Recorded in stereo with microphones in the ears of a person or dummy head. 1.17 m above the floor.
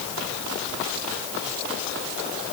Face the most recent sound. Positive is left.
No sound to turn to.